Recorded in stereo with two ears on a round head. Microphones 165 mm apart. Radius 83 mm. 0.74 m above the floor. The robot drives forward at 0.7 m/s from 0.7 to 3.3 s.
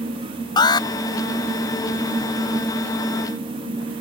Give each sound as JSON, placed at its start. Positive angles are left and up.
{"t": 0.6, "sound": "an alarm", "side_deg": 25}